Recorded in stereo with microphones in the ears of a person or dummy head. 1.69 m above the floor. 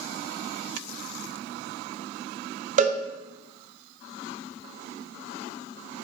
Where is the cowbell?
40° right (ahead or behind), 1.0 m.